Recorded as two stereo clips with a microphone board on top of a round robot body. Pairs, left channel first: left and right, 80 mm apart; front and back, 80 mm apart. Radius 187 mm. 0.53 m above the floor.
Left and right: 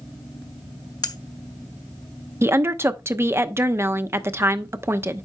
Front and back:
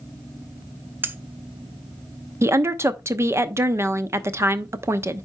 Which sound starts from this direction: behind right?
A woman speaking, at 2.4 s.